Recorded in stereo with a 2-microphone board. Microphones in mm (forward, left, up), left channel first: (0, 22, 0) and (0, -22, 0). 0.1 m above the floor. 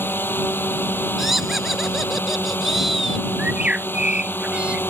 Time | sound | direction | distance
0.0 | a drone | 55° left (ahead or behind) | ?
1.2 | laughter | 5° right (ahead or behind) | ?
3.4 | a bird | 25° right (ahead or behind) | ?